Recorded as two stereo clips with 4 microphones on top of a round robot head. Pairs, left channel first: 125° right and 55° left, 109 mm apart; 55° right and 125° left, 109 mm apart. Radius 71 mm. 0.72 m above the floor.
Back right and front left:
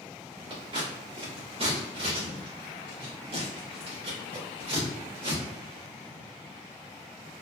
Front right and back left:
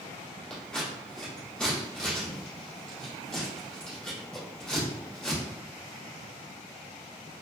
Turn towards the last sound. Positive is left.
turn(degrees=25)